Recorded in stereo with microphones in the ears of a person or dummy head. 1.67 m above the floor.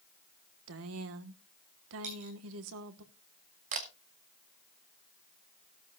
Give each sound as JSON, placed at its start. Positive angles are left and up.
{"t": 0.7, "sound": "a woman speaking", "side_deg": -70, "distance_m": 1.3}
{"t": 2.0, "sound": "a dropped coin", "side_deg": -40, "distance_m": 10.0}
{"t": 3.7, "sound": "a camera shutter", "side_deg": -35, "distance_m": 1.4}